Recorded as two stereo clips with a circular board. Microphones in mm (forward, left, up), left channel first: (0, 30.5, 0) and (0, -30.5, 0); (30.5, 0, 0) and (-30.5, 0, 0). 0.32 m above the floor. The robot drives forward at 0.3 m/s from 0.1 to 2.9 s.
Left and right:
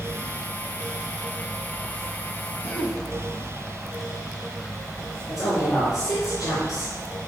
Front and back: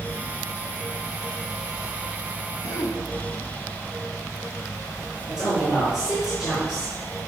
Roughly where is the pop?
I don't hear a pop.